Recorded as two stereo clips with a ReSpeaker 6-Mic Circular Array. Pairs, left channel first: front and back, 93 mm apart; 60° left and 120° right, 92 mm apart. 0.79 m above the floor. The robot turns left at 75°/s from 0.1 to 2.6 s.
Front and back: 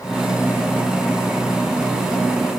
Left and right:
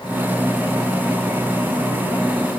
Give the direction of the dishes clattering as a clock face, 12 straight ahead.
No dishes clattering in this recording.